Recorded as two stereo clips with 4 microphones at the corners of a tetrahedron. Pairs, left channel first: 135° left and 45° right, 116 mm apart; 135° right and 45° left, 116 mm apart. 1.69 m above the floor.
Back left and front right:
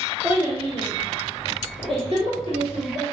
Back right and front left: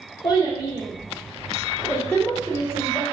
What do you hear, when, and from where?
0.2 s a child speaking: 120° right, 0.6 m; by 3.0 s 55° right, 1.9 m